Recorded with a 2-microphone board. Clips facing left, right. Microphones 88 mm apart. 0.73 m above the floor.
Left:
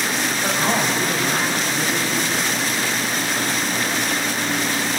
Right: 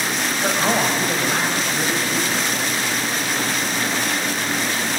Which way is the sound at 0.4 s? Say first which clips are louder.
Right 2 dB; 20° right (ahead or behind).